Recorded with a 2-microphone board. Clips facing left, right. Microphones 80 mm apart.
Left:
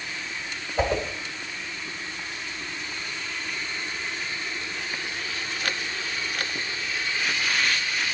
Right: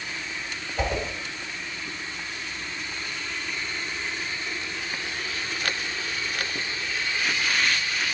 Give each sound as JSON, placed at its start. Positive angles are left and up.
{"t": 0.8, "sound": "a whoosh", "side_deg": 25, "distance_m": 1.1}